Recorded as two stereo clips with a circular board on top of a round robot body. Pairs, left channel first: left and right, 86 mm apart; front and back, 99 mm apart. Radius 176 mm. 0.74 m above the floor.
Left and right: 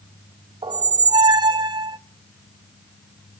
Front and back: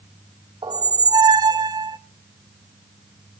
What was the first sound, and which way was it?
A squeak, 125° right.